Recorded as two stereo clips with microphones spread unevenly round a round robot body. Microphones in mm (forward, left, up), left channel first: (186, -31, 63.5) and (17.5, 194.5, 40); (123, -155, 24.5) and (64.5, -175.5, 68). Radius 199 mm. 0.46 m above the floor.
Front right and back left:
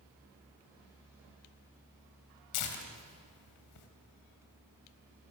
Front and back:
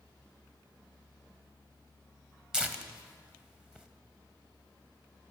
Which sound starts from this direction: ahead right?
Tearing paper, at 2.5 s.